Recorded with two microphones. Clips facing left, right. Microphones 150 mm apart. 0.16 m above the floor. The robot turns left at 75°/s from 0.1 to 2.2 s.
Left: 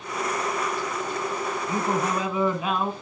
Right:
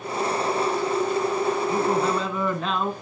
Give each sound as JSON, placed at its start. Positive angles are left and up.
{"t": 1.7, "sound": "a man speaking", "side_deg": 25, "distance_m": 1.2}